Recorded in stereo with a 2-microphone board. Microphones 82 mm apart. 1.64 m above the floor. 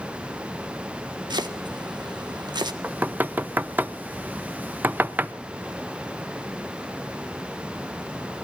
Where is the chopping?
70° right (ahead or behind), 1.5 m.